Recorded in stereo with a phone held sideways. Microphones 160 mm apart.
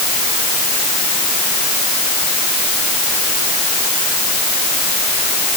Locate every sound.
Only background noise.